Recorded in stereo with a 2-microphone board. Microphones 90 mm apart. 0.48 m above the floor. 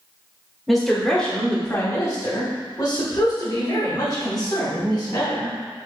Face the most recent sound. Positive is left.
turn(degrees=45)  # may be behind; listen again after turning